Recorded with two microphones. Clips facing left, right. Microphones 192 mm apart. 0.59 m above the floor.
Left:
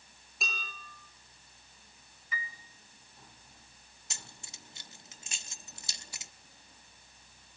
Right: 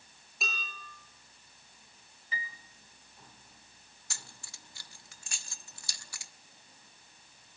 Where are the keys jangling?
20° left (ahead or behind), 0.6 m.